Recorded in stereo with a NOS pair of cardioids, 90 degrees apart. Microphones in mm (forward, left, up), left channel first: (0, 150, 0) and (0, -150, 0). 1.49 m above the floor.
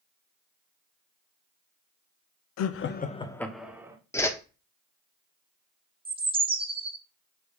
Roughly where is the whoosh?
Ahead.